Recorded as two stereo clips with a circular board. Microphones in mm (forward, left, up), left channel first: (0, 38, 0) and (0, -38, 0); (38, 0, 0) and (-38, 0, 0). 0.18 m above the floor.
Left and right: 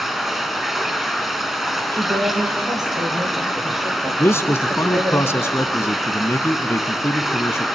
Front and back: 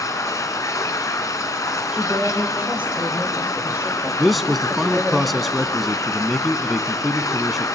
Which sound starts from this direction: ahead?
Running water, at 0.0 s.